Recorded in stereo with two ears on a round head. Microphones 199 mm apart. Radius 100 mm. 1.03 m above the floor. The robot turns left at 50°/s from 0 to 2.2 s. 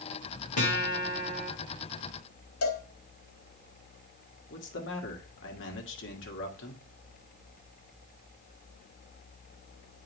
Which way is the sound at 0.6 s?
65° left.